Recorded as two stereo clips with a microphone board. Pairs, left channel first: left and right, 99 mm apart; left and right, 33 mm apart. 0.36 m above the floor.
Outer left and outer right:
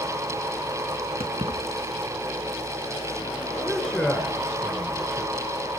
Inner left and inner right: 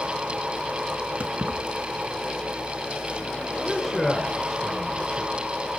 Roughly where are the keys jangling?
Right.